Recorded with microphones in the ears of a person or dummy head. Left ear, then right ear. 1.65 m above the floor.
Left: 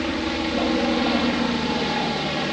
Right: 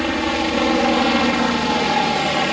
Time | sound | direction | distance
0.0 | a helicopter | 35° right (ahead or behind) | ?